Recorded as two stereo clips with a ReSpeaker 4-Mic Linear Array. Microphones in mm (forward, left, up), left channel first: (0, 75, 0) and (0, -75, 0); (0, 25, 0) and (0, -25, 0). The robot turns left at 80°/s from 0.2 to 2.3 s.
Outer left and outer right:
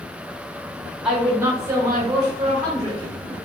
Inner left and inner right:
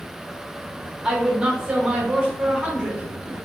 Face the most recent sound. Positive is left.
turn(degrees=-25)  # may be behind; listen again after turning